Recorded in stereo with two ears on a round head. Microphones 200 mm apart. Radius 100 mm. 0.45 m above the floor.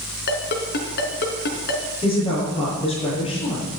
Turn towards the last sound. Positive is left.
turn(degrees=25)  # may be behind; listen again after turning